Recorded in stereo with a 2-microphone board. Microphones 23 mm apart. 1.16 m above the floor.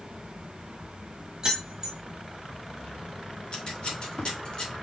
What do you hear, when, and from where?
1.4 s keys jangling: 30° right (ahead or behind), 1.0 m
3.5 s scissors: 50° left (ahead or behind), 1.4 m